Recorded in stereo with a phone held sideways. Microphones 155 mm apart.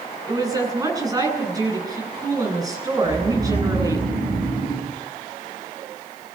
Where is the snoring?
70° right (ahead or behind), 7 m.